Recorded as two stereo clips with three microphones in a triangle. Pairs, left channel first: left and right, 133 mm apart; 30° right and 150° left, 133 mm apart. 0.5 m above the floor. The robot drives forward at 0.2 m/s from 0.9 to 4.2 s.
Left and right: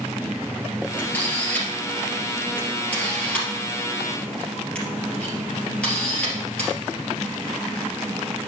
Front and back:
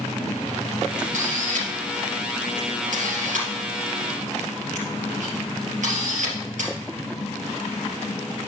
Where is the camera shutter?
170° left, 3 m.